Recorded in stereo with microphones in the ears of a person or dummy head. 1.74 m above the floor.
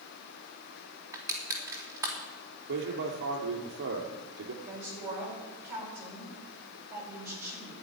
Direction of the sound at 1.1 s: 25° right (ahead or behind).